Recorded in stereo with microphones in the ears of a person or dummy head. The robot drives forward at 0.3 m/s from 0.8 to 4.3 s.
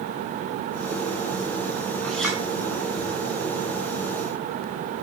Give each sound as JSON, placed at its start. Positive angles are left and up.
{"t": 2.0, "sound": "a clink", "side_deg": 5, "distance_m": 4.5}